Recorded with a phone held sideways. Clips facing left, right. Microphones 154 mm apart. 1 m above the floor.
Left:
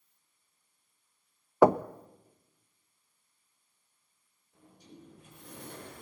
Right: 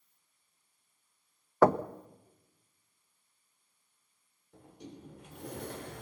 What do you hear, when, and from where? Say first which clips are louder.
1.6 s knocking: left 2 dB; 15° left (ahead or behind), 0.5 m
4.5 s a sliding door: right 5 dB; 80° right, 4 m